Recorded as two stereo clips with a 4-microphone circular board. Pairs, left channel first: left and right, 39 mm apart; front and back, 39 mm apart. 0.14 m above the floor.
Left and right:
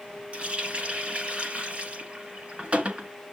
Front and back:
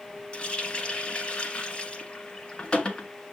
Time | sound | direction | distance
0.3 | a running tap | 45° right | 1.1 m